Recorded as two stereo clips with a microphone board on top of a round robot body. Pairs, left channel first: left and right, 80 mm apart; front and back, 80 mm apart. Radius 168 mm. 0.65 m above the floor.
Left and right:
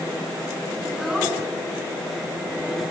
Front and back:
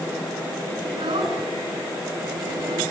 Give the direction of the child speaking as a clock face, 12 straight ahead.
6 o'clock.